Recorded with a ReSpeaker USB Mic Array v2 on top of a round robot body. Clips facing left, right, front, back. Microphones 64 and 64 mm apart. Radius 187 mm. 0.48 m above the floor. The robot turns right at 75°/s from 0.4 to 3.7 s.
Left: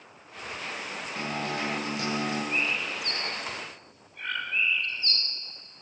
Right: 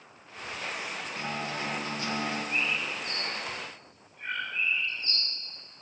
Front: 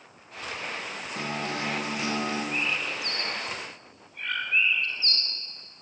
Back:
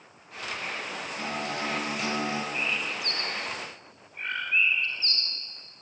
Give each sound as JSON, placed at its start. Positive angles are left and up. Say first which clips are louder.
{"t": 1.1, "sound": "a guitar", "louder": "left 4 dB, front 1 dB", "azimuth_deg": 25, "distance_m": 10.0}
{"t": 2.5, "sound": "a bird", "louder": "left 1 dB, front 1 dB", "azimuth_deg": 25, "distance_m": 4.0}